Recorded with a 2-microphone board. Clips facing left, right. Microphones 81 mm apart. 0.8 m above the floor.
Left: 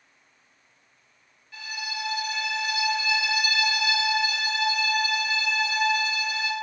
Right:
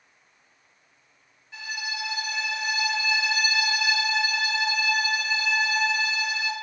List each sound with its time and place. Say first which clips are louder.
1.5 s a violin: right 1 dB; 25° right (ahead or behind), 1.4 m